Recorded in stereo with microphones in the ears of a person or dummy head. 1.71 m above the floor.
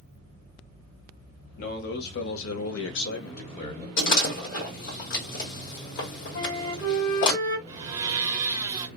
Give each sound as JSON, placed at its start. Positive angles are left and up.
{"t": 1.6, "sound": "a man speaking", "side_deg": 50, "distance_m": 1.1}
{"t": 4.0, "sound": "a door slam", "side_deg": 65, "distance_m": 1.4}
{"t": 6.3, "sound": "a flute", "side_deg": 70, "distance_m": 1.6}
{"t": 7.7, "sound": "a blender", "side_deg": -20, "distance_m": 0.6}